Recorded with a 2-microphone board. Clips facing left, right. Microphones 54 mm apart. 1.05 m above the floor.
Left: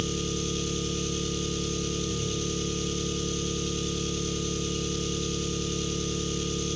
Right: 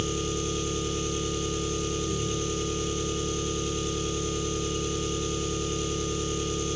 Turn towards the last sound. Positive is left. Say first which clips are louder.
# right 1 dB
turn(degrees=-15)  # may be behind; listen again after turning